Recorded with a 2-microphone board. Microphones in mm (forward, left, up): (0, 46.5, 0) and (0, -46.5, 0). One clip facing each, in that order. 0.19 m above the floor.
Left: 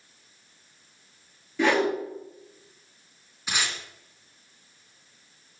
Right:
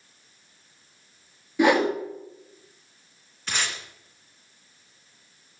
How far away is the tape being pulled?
About 2.5 m.